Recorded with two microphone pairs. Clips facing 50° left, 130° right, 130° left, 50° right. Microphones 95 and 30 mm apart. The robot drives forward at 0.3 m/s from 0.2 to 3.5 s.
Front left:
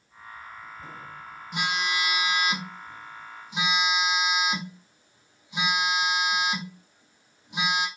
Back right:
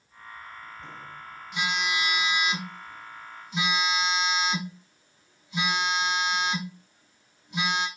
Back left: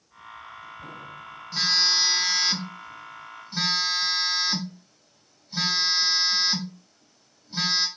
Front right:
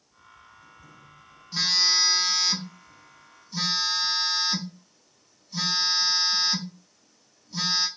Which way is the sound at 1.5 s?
60° left.